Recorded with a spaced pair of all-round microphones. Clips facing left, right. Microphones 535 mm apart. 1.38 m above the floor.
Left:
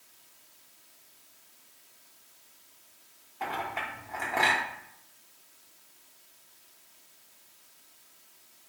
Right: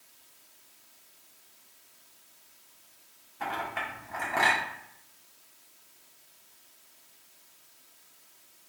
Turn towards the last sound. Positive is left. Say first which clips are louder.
# even
turn(degrees=-35)  # may be behind; listen again after turning